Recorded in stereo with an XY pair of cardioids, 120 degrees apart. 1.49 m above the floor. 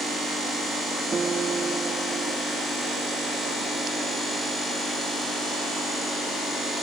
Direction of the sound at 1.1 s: 30° right.